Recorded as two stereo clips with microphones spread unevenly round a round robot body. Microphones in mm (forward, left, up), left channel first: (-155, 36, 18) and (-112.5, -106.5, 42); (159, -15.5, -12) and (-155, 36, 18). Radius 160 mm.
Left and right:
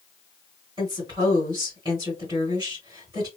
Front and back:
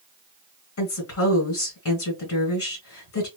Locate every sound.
0.8 s a woman speaking: 10° right, 1.7 m